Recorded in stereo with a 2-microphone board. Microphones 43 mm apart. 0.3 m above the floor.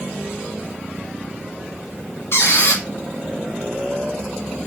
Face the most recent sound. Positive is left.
turn(degrees=60)  # may be behind; listen again after turning